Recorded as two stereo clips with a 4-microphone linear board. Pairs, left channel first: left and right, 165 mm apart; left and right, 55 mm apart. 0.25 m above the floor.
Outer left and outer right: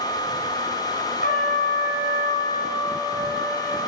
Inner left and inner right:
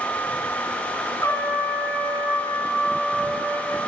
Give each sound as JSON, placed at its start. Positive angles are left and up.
{"t": 1.2, "sound": "a trumpet", "side_deg": 60, "distance_m": 0.9}